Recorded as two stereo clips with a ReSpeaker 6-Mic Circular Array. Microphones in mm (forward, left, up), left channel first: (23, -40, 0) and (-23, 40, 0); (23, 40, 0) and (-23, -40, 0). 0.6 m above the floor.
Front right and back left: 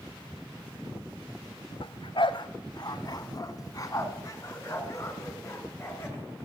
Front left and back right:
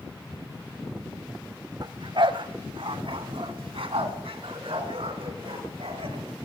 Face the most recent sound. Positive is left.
turn(degrees=-120)